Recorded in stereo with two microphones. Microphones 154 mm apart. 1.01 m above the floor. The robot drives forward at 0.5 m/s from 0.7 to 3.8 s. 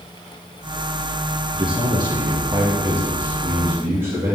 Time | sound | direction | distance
1.5 | a man speaking | 35° right (ahead or behind) | 1.0 m